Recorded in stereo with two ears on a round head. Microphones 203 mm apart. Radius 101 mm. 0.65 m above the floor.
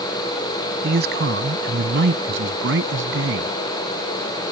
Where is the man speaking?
50° right (ahead or behind); by 3.5 s 70° right (ahead or behind).